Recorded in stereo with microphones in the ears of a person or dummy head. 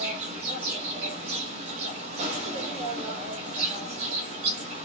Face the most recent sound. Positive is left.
turn(degrees=-35)  # may be behind; listen again after turning